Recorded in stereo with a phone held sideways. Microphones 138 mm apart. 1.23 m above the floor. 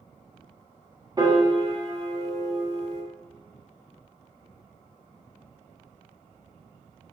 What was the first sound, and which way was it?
A piano, 25° right (ahead or behind).